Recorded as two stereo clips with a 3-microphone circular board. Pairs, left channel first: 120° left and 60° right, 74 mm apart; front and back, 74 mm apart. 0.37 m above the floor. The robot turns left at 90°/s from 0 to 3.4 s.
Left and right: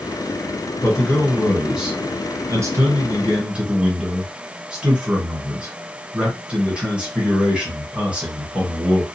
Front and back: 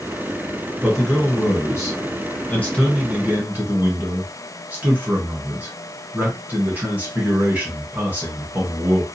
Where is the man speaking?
105° left, 1.3 m; by 9.1 s 130° right, 1.3 m.